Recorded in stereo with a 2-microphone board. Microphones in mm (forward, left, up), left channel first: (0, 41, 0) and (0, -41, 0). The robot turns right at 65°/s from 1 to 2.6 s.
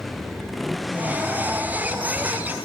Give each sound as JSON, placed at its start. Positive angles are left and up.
{"t": 0.0, "sound": "a motorcycle", "azimuth_deg": 0}